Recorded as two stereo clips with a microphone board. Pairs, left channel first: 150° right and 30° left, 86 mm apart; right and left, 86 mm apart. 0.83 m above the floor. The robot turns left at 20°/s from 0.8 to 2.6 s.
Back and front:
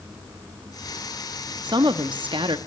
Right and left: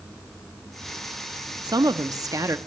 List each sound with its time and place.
1.6 s a woman speaking: 60° left, 0.9 m; by 2.6 s 40° left, 0.9 m